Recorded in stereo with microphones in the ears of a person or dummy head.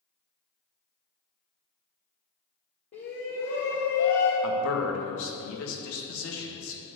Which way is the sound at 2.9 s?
35° left (ahead or behind).